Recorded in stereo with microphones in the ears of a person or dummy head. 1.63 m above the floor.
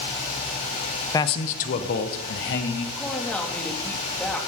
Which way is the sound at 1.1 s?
15° left (ahead or behind).